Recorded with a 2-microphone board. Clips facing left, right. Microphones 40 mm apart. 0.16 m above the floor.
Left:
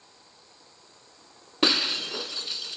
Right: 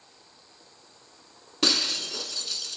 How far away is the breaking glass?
About 0.7 m.